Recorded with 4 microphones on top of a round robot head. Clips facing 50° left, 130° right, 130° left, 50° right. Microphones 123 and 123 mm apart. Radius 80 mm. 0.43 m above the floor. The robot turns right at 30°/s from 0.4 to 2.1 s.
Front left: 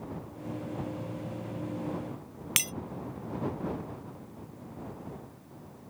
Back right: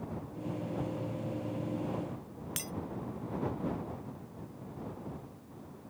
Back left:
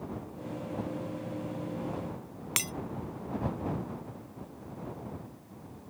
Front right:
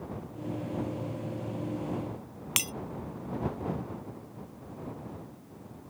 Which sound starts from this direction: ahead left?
Breaking glass, at 2.6 s.